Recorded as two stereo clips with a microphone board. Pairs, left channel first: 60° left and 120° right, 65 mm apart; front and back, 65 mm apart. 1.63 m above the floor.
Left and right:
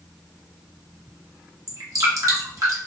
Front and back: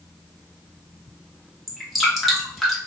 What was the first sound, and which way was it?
Dripping, 90° right.